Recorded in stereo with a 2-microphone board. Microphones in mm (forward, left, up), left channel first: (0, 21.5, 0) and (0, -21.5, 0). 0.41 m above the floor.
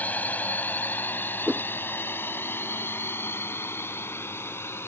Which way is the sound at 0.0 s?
40° left (ahead or behind).